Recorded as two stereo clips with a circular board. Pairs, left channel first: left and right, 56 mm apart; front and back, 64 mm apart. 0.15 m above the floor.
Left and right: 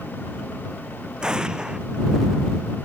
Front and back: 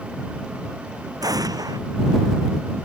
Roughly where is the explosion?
Behind.